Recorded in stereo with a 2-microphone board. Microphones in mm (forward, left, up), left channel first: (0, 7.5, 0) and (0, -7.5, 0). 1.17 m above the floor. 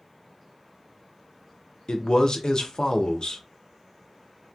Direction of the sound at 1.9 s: 55° left (ahead or behind).